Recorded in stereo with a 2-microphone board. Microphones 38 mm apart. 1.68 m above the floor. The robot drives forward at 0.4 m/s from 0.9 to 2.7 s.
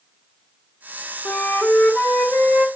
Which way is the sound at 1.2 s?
65° left (ahead or behind).